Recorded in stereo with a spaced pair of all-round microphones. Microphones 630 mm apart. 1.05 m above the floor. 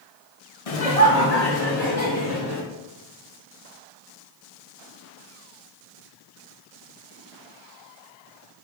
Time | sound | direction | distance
0.7 | laughter | 65° left (ahead or behind) | 1.0 m